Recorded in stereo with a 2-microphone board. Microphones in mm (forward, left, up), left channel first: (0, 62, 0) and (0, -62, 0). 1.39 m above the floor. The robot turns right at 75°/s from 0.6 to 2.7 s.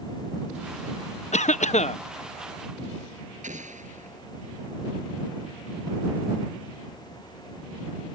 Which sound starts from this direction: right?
An explosion, at 3.4 s.